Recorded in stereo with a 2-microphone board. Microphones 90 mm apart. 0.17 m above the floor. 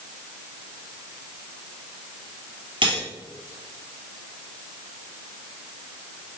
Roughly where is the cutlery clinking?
Right.